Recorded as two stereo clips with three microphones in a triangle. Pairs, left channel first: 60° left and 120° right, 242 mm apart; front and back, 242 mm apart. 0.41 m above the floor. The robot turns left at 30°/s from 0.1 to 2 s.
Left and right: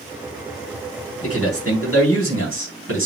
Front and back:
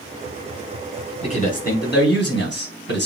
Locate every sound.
1.2 s a man speaking: 65° left, 4 m; by 3.1 s 40° left, 4 m